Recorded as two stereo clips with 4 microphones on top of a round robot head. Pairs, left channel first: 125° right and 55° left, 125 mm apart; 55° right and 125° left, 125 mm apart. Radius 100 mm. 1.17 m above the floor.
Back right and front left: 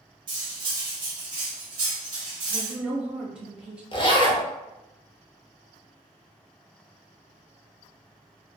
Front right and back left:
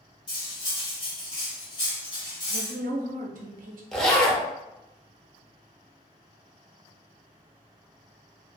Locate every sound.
0.3 s cutlery clinking: straight ahead, 1.0 m
2.5 s a woman speaking: 135° left, 0.7 m
3.9 s a zipper: 135° right, 0.8 m